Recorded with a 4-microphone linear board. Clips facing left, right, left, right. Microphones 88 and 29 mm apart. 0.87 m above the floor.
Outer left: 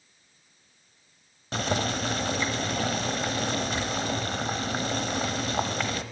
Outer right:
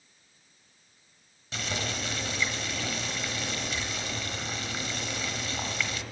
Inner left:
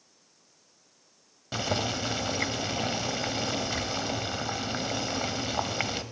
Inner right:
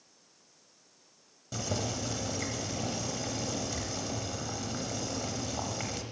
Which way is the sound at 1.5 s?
45° left (ahead or behind).